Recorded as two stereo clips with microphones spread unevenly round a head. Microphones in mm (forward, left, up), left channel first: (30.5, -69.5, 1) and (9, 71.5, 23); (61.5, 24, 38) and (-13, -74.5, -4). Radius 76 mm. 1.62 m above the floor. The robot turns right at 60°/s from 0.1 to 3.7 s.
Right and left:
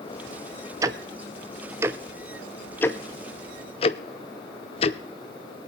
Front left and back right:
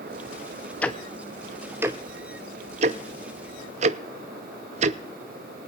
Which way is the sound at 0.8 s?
75° left.